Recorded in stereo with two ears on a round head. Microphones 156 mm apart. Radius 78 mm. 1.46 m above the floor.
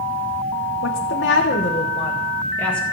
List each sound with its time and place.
0.8 s a woman speaking: 90° left, 1.4 m; by 2.8 s 5° left (ahead or behind), 2 m